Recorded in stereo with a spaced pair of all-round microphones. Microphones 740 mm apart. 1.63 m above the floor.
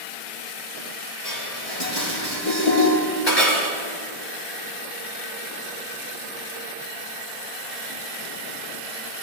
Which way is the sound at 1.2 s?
55° left (ahead or behind).